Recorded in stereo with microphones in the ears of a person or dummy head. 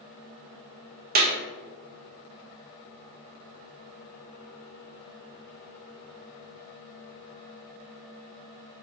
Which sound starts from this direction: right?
A clap, at 1.1 s.